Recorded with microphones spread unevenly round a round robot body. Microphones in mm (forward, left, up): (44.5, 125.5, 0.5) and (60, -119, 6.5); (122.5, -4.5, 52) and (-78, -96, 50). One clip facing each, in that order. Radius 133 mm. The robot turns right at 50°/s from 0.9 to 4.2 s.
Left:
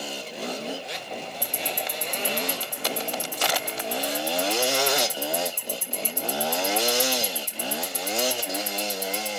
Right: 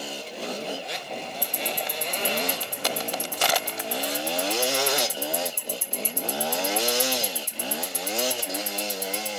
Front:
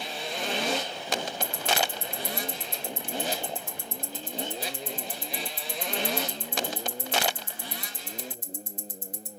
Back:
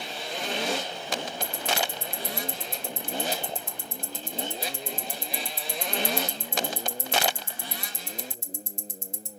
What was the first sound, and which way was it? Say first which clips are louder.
Ticking: right 1 dB, front 1 dB; 110° left.